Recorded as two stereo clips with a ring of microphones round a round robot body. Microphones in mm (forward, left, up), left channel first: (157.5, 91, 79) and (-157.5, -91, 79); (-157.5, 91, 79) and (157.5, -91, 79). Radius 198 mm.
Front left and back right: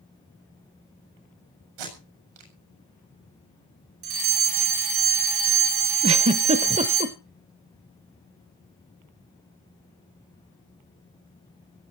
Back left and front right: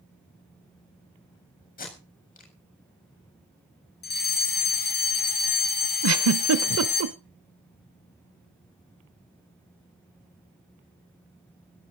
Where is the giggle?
80° right, 0.9 m.